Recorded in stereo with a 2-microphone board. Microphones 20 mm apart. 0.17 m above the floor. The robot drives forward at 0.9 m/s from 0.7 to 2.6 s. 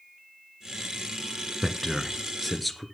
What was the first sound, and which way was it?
A man speaking, centre (ahead or behind).